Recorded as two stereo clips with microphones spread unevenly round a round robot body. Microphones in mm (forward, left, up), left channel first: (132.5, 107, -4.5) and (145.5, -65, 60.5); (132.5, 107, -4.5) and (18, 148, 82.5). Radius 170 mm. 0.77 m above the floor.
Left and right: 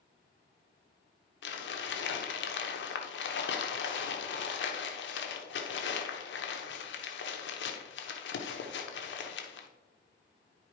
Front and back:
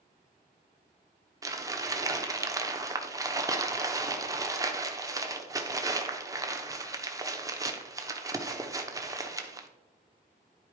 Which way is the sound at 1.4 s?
95° left.